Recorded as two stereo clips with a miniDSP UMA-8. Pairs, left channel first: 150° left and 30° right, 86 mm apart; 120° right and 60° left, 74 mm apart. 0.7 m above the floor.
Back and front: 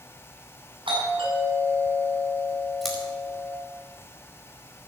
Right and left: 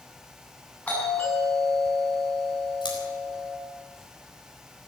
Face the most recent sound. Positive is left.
turn(degrees=-120)